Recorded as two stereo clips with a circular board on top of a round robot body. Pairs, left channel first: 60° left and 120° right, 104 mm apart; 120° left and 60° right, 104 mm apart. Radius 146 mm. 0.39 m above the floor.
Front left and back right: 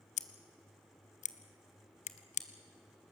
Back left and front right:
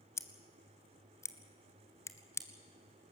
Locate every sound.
0.2 s scissors: 55° left, 0.5 m